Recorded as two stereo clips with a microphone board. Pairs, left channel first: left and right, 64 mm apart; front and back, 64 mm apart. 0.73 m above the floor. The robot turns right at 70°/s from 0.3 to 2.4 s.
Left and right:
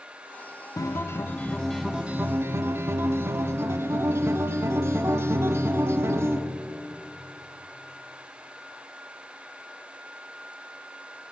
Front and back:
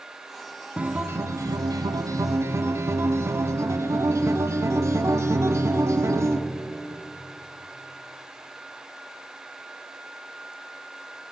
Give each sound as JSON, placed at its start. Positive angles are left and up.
{"t": 0.8, "sound": "a guitar", "azimuth_deg": 110, "distance_m": 0.6}